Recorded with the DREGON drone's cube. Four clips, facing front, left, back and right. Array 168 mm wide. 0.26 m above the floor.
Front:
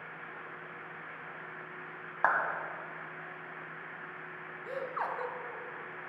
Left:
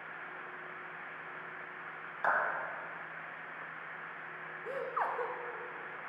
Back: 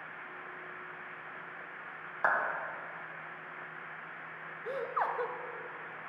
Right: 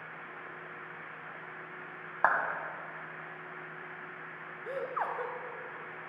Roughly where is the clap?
Ahead right.